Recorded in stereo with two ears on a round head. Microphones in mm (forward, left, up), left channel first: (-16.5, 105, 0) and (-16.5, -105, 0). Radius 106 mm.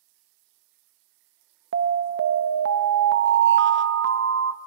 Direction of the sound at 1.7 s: 50° right (ahead or behind).